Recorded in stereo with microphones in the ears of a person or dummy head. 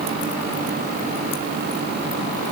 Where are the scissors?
No scissors in this recording.